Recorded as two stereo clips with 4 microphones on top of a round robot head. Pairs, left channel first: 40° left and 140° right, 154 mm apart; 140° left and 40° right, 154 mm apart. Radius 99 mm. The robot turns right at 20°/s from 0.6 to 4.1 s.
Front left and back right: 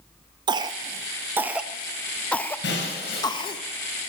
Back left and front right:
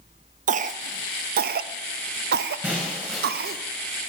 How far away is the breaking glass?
About 5.5 m.